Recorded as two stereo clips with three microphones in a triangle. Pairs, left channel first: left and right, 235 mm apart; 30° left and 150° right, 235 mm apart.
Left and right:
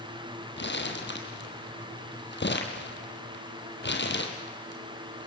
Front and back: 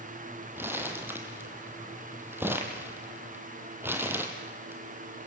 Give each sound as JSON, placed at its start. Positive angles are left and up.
{"t": 0.6, "sound": "crumpling", "azimuth_deg": 130, "distance_m": 2.5}